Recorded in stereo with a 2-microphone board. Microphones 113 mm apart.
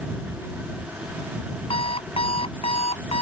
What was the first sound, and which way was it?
An alarm clock, 55° left (ahead or behind).